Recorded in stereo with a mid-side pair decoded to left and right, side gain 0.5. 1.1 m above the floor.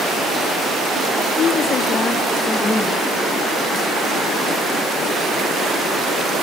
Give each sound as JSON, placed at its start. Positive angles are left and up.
{"t": 1.4, "sound": "a woman speaking", "azimuth_deg": 50, "distance_m": 3.0}